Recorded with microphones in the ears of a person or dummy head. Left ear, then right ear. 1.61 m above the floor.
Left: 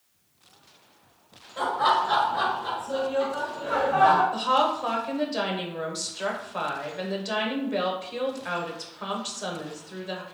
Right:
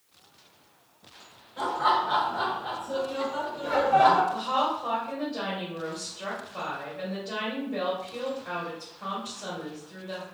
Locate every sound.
1.6 s laughter: 40° left (ahead or behind), 1.5 m; by 4.2 s 45° right (ahead or behind), 1.1 m
4.3 s a woman speaking: 55° left (ahead or behind), 1.0 m